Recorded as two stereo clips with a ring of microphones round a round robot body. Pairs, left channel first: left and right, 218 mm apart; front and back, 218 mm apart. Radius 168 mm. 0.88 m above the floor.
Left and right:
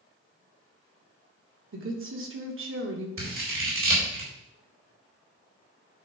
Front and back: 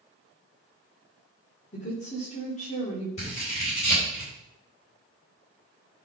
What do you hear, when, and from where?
1.7 s a woman speaking: 65° right, 2 m
3.2 s scissors: 70° right, 4 m